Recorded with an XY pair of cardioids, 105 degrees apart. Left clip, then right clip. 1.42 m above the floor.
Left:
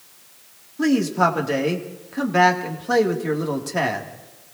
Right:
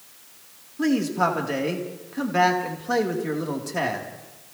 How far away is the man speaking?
About 2.5 m.